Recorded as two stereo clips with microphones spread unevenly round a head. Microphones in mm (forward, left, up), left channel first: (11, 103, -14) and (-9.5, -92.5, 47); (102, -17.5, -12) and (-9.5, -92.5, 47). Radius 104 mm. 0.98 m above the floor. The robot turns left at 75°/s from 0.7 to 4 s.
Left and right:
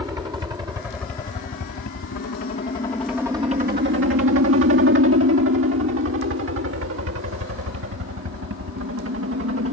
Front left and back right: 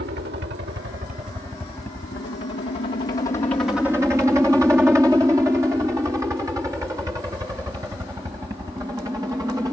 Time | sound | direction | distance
0.0 | a helicopter | 175° right | ?